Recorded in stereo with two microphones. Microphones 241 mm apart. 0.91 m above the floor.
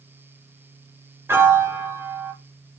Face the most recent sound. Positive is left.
turn(degrees=-10)  # may be behind; listen again after turning